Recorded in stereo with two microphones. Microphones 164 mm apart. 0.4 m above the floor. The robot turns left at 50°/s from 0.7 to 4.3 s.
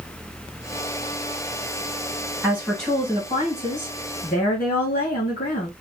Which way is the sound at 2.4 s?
170° right.